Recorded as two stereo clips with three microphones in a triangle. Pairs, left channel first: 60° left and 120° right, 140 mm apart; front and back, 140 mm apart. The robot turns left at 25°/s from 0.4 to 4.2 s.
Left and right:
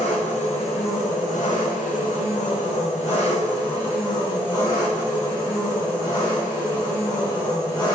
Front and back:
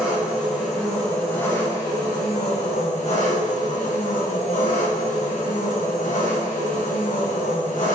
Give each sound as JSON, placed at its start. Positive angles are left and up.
{"t": 0.0, "sound": "an engine running", "azimuth_deg": 95, "distance_m": 3.0}